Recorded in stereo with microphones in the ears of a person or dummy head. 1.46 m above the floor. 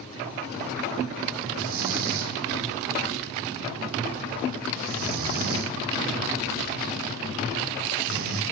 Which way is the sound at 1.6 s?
55° right (ahead or behind).